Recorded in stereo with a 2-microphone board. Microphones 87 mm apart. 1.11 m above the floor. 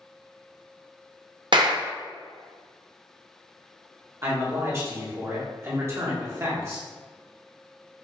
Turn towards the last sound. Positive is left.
turn(degrees=-35)  # may be behind; listen again after turning